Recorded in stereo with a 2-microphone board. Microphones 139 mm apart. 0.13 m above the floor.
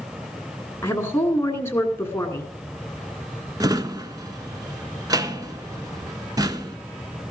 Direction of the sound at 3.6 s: 30° right (ahead or behind).